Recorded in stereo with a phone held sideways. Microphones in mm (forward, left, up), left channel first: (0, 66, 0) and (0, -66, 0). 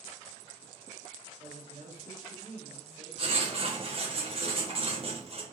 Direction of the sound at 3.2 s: 45° right (ahead or behind).